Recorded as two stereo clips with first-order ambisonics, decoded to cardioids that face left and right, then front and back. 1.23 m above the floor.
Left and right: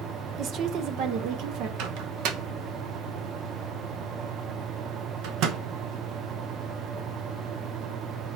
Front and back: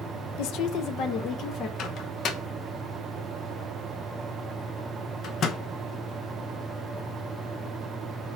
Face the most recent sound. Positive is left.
turn(degrees=-55)